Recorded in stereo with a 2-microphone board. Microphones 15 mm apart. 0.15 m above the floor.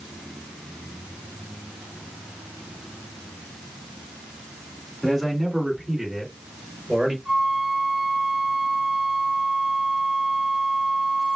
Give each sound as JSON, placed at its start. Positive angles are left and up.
{"t": 5.0, "sound": "a man speaking", "side_deg": -25, "distance_m": 1.8}
{"t": 7.2, "sound": "a flute", "side_deg": -60, "distance_m": 1.6}